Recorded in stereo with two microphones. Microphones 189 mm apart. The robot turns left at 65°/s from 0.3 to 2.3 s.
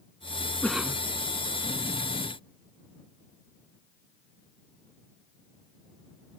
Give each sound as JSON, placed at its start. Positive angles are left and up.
{"t": 0.6, "sound": "a cough", "side_deg": 5}